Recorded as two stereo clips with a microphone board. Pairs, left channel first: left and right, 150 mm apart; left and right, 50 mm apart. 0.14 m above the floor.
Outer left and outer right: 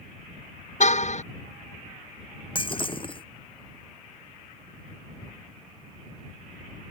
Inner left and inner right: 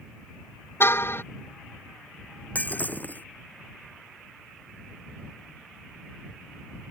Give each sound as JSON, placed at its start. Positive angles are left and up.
{"t": 0.8, "sound": "a car horn", "side_deg": 50}
{"t": 2.5, "sound": "breaking glass", "side_deg": 35}